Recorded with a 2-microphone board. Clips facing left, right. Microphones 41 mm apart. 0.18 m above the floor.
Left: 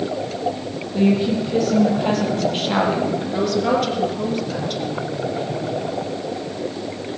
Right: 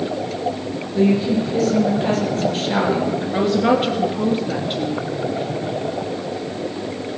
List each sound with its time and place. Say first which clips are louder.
0.9 s a woman speaking: right 1 dB; 25° left (ahead or behind), 6 m
3.3 s a woman speaking: right 3 dB; 30° right (ahead or behind), 2.5 m